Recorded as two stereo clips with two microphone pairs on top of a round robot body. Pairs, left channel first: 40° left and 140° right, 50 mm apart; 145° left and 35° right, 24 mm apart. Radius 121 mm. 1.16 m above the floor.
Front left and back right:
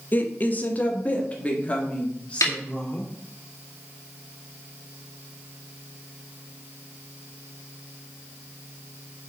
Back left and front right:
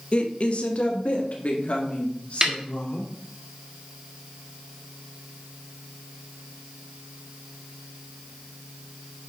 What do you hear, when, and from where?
0.1 s a woman speaking: 95° left, 1.2 m; by 3.1 s 110° left, 4 m
2.4 s a snare drum: 30° left, 1.1 m